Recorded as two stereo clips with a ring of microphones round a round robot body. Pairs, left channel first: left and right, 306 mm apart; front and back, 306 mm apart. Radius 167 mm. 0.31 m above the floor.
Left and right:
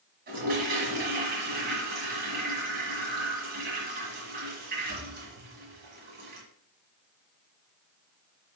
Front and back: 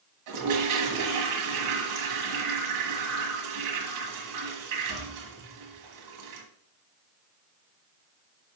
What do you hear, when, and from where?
0.3 s a toilet flushing: 155° right, 1.6 m